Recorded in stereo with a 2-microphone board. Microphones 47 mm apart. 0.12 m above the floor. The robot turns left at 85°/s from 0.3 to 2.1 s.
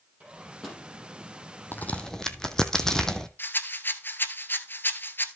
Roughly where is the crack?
Left.